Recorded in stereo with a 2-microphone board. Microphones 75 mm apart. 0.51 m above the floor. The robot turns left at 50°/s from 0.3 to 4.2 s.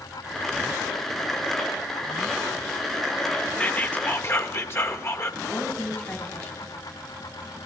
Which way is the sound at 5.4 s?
25° left (ahead or behind).